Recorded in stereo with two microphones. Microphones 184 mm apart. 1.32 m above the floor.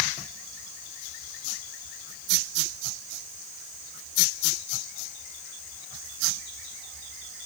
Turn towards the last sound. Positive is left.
No sound to turn to.